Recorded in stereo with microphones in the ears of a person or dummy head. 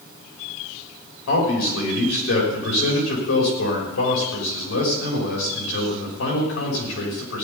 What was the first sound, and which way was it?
A man speaking, 85° left.